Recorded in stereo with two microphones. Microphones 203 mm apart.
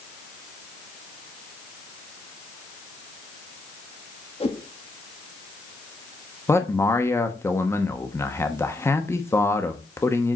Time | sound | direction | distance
4.4 | a whoosh | 30° left (ahead or behind) | 1.4 m
6.5 | a man speaking | 10° left (ahead or behind) | 1.0 m